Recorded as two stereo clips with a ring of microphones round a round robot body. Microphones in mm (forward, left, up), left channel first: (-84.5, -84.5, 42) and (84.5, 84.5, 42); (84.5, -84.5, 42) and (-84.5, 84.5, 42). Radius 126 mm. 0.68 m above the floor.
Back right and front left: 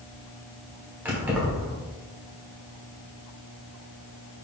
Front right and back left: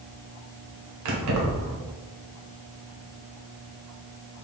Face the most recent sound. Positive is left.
turn(degrees=130)